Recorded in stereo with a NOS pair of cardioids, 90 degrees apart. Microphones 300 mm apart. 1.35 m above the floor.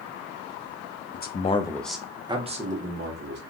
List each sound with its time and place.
1.1 s a man speaking: 35° left, 0.8 m; by 3.4 s 35° right, 1.4 m